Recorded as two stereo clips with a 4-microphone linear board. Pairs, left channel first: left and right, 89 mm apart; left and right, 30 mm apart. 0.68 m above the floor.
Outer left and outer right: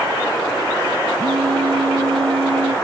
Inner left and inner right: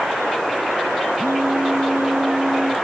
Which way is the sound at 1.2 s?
85° right.